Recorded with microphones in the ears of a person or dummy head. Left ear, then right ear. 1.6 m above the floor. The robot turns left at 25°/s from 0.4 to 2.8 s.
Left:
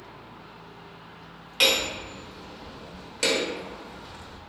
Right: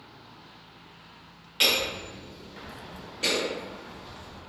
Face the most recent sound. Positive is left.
turn(degrees=50)  # may be behind; listen again after turning